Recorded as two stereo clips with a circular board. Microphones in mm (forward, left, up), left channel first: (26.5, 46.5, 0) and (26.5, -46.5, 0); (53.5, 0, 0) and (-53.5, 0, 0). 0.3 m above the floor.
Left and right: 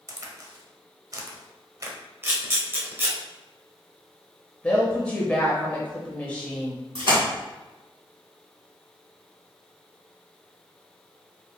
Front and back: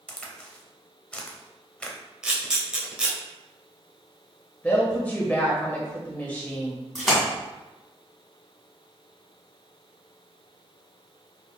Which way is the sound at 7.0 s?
85° right.